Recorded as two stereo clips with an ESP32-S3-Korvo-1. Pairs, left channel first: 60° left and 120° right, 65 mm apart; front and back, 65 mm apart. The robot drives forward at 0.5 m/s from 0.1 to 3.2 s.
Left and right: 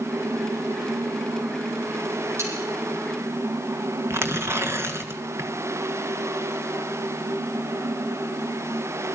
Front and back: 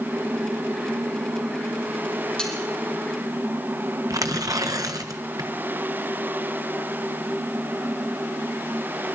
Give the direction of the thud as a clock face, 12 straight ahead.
I don't hear a thud.